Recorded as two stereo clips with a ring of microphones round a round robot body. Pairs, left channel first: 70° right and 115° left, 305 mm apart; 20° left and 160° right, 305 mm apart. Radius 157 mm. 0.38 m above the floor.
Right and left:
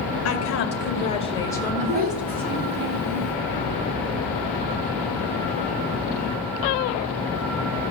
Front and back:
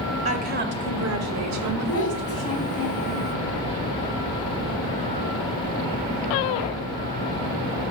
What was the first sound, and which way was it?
A woman speaking, 95° right.